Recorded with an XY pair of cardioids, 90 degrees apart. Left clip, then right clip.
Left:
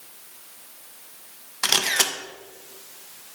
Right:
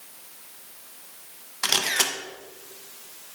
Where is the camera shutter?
20° left, 0.6 m.